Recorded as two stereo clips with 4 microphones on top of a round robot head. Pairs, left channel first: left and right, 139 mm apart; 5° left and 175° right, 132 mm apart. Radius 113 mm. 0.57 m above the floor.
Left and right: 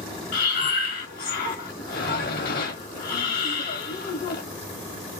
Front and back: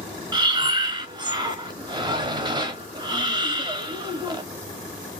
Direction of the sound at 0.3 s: 125° left.